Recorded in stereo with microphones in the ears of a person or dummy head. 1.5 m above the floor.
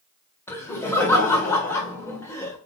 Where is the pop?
I don't hear a pop.